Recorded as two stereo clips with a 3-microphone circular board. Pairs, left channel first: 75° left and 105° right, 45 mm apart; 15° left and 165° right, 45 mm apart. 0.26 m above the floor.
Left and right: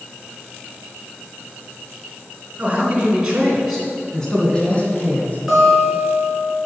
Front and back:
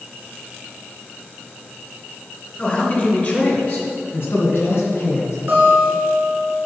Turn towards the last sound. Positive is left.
turn(degrees=165)